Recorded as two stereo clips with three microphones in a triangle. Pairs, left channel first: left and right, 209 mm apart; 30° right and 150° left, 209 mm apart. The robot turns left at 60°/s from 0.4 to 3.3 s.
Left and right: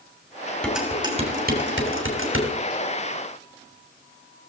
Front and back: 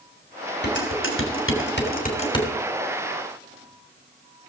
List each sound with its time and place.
0.6 s dishes clattering: 5° left, 3 m; by 2.5 s 105° right, 3 m